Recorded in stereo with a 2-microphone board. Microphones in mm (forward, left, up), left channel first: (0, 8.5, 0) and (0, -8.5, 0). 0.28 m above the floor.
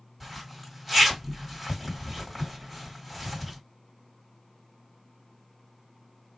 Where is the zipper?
5° right (ahead or behind), 1.8 m.